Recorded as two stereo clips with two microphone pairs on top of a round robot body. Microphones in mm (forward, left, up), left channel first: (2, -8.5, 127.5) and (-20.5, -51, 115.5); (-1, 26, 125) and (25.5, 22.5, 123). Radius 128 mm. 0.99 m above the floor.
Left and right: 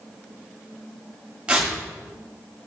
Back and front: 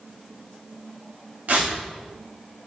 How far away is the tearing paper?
About 2 m.